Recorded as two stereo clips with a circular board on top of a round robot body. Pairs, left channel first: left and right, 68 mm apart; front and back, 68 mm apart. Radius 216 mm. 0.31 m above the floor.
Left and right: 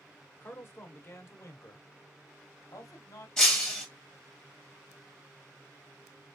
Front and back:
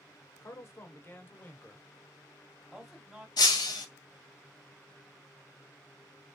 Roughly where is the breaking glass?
Ahead.